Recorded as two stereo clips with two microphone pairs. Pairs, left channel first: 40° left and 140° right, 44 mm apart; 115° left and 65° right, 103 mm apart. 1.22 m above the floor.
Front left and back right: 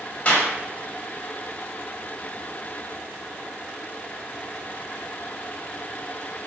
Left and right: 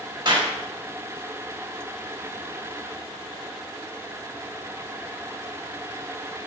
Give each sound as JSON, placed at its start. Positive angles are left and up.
{"t": 0.2, "sound": "a clap", "azimuth_deg": -25, "distance_m": 4.5}